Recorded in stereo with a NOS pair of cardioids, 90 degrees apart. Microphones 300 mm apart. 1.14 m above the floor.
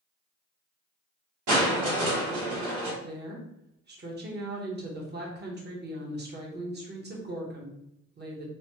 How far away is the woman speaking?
About 1.1 m.